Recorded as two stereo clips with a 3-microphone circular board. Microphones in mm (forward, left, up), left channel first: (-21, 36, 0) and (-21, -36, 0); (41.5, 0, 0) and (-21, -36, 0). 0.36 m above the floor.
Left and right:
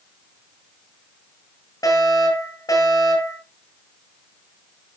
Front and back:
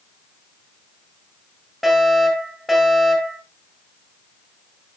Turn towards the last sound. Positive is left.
turn(degrees=120)